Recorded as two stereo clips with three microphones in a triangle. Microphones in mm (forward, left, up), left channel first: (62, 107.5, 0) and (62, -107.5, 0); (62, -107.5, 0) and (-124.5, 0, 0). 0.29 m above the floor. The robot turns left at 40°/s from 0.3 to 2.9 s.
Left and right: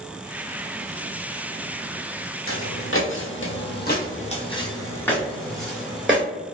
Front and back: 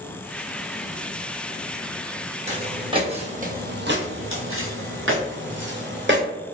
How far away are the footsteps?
About 0.9 m.